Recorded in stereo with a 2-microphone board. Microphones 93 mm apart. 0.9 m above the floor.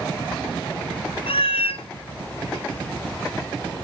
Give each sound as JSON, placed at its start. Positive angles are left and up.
{"t": 1.3, "sound": "a cat meowing", "side_deg": 80, "distance_m": 0.8}